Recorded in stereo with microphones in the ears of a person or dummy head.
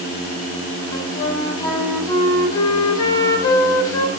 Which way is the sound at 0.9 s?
25° left (ahead or behind).